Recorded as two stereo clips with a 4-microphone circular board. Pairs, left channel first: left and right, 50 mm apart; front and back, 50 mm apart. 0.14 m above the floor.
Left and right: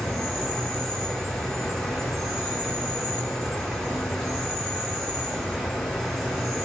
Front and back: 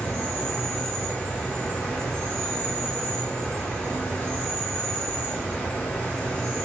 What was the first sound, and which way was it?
An insect, 5° left.